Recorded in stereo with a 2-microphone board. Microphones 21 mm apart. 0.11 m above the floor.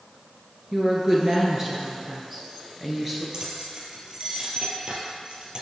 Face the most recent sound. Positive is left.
turn(degrees=-40)  # may be behind; listen again after turning